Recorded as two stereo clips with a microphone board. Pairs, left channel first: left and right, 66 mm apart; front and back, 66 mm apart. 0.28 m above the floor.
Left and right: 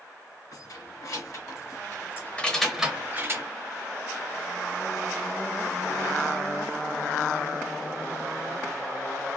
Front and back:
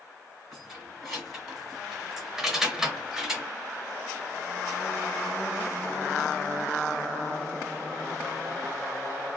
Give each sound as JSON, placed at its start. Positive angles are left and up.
{"t": 0.5, "sound": "keys jangling", "azimuth_deg": 95, "distance_m": 2.0}